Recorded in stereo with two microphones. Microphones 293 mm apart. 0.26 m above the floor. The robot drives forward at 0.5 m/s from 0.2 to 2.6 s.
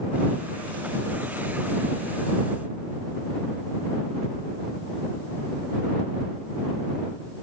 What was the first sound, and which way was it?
Only background noise.